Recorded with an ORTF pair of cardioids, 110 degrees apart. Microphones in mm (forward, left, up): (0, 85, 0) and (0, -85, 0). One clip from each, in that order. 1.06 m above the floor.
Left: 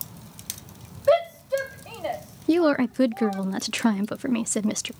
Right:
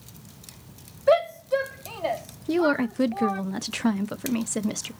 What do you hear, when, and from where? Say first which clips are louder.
1.1 s a shout: even; 5° right, 1.2 m; by 3.4 s 25° right, 2.5 m
2.5 s a woman speaking: left 2 dB; 30° left, 0.7 m